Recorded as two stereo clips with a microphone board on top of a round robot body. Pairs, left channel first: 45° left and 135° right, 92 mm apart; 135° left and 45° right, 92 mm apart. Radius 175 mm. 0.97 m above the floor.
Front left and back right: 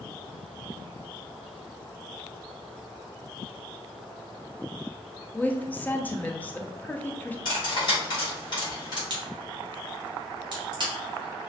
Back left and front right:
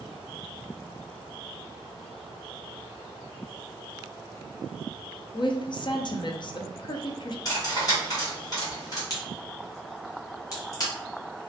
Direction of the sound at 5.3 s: 115° left.